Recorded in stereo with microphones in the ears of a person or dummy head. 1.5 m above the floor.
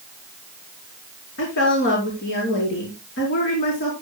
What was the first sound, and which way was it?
A woman speaking, 60° left (ahead or behind).